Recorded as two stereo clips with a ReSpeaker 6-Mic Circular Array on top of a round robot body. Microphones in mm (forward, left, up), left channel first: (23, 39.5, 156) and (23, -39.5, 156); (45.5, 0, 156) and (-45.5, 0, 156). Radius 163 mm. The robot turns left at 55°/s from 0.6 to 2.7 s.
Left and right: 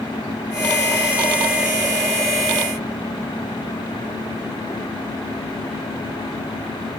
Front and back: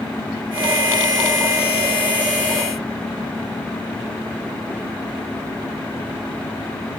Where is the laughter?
I don't hear laughter.